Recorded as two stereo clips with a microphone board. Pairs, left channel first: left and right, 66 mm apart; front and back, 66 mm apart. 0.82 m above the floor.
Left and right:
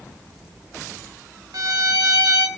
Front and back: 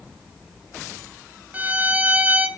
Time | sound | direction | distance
1.5 | a violin | 115° right | 1.5 m